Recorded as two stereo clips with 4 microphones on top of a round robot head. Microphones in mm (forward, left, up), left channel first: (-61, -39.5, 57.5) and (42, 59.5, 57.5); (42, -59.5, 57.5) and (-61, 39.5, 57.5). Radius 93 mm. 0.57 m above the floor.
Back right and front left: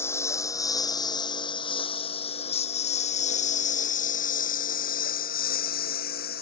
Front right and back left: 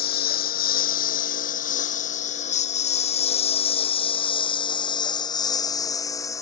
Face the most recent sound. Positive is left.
turn(degrees=-115)